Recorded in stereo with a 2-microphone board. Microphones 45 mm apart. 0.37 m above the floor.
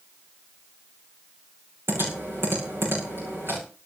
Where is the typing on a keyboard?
55° right (ahead or behind), 7 m.